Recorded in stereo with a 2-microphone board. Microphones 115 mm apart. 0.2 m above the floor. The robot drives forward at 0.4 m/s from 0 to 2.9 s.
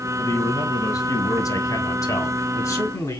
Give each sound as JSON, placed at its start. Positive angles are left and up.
{"t": 0.2, "sound": "a man speaking", "side_deg": 30, "distance_m": 1.3}